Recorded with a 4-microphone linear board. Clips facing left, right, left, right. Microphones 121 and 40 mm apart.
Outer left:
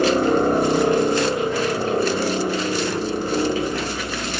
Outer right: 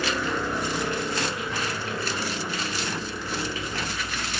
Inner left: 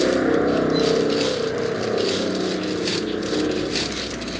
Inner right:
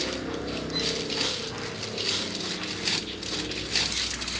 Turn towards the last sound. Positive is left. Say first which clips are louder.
# outer left 11 dB, inner left 14 dB
turn(degrees=45)  # may be behind; listen again after turning